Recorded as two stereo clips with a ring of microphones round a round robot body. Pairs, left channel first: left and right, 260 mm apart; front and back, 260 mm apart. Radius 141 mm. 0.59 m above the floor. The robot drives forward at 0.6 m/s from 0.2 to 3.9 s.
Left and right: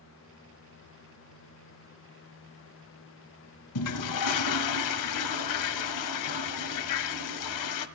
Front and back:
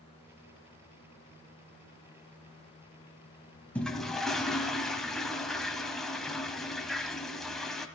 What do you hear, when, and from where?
3.8 s a toilet flushing: 85° left, 1.5 m; by 7.9 s 90° left, 1.5 m